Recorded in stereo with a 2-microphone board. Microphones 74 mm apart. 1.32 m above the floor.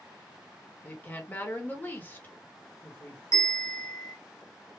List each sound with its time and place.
0.8 s a woman speaking: 25° left (ahead or behind), 1.2 m
3.3 s a bell: 40° left (ahead or behind), 1.3 m